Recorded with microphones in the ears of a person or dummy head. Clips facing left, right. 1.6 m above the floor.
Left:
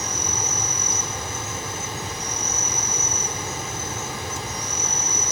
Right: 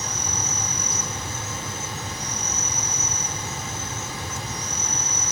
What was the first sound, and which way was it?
An insect, 55° left (ahead or behind).